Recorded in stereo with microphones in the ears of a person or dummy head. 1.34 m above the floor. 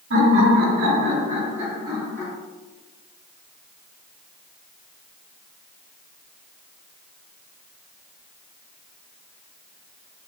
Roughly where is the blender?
No blender in this recording.